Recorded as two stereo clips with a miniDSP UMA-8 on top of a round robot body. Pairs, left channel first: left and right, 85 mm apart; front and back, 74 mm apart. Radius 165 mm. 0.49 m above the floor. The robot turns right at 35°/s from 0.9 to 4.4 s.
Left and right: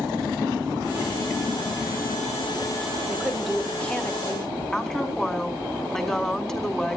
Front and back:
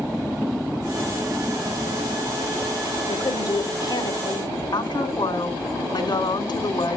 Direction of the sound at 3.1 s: 10° right.